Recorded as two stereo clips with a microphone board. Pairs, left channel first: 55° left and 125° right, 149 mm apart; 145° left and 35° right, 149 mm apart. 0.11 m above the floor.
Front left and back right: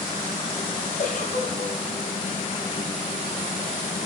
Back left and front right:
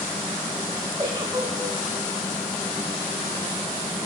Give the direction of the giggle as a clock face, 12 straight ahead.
11 o'clock.